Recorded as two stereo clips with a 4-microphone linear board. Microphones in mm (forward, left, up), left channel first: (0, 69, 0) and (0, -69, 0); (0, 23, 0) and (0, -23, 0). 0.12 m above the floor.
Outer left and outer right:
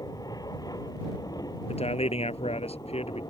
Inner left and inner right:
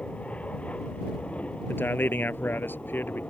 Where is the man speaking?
50° left (ahead or behind).